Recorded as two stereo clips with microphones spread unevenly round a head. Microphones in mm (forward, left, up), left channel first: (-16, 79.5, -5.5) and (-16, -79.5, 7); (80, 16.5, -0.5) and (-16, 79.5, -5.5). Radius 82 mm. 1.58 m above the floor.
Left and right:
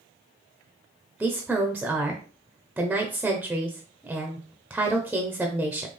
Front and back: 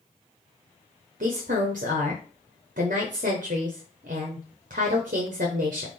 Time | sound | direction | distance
1.2 | a woman speaking | 175° right | 0.8 m